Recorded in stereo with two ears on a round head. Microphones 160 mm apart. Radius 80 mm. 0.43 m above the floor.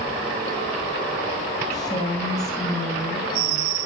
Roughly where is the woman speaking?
Left.